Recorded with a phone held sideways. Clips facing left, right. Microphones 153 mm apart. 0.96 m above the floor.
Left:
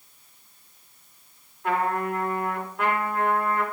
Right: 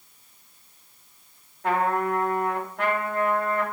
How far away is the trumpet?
About 2.5 m.